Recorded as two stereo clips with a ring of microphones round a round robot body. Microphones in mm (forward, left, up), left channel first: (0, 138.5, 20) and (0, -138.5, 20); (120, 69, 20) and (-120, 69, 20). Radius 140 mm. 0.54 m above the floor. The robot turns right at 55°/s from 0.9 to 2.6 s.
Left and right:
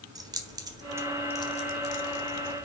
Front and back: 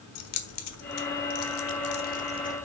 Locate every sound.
0.1 s keys jangling: 15° right, 1.4 m; by 2.6 s 80° left, 1.4 m